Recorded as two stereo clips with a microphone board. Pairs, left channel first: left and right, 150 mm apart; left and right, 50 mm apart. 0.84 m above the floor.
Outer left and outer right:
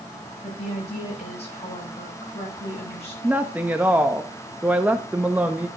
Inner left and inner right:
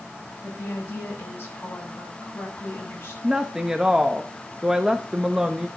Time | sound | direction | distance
0.4 | a woman speaking | 45° left (ahead or behind) | 7.5 m
3.2 | a woman speaking | 10° right (ahead or behind) | 0.9 m